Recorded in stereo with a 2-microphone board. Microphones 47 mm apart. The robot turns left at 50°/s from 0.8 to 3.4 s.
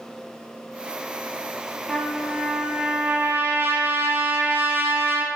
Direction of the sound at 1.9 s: 15° left.